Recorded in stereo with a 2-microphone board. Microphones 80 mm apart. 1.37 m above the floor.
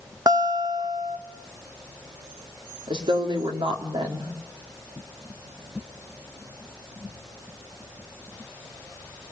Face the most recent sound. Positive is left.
turn(degrees=-85)